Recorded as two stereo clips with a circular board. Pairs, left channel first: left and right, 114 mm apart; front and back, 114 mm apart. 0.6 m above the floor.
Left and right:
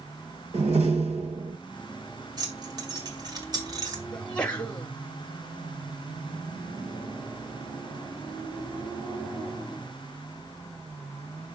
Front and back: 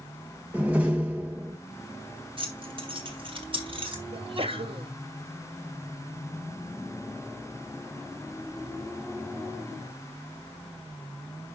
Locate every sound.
0.5 s a door slam: 105° right, 2.0 m
2.4 s keys jangling: 145° right, 2 m
4.1 s a sneeze: 170° left, 1.2 m